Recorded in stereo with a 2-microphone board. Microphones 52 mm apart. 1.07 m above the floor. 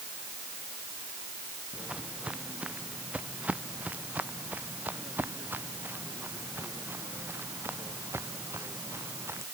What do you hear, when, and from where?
1.7 s footsteps: 20° right (ahead or behind); by 9.4 s 60° right (ahead or behind)